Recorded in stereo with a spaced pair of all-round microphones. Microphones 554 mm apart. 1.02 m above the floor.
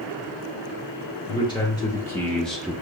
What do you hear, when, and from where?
1.3 s a man speaking: 10° left (ahead or behind), 1.5 m; by 2.7 s 5° right (ahead or behind), 0.7 m